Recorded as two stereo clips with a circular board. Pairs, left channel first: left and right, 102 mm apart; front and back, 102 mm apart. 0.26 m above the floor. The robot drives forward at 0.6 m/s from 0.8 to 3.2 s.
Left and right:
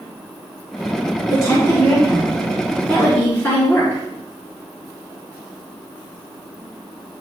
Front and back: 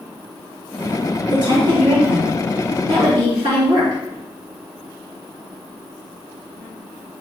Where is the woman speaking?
145° left, 1.8 m; by 4.0 s 160° left, 3 m.